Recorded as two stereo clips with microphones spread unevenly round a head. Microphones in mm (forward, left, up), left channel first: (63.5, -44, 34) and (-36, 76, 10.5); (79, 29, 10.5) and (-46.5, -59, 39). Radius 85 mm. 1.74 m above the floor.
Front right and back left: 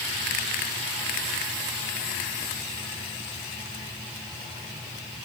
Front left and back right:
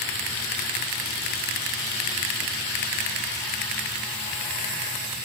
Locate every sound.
Only background noise.